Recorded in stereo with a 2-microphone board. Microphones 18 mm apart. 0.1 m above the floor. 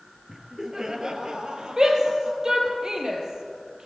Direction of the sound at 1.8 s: 35° right (ahead or behind).